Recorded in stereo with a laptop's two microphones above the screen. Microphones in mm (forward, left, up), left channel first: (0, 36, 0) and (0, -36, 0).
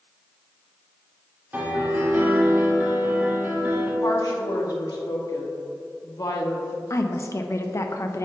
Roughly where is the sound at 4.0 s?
Left.